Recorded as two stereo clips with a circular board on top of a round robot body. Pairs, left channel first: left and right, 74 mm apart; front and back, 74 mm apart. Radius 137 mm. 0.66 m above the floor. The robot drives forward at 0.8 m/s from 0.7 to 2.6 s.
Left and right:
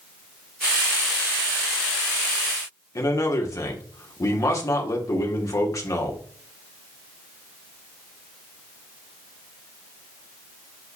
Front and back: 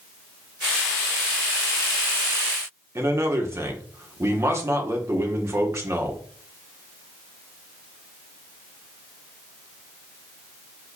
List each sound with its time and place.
3.0 s a man speaking: 130° left, 2 m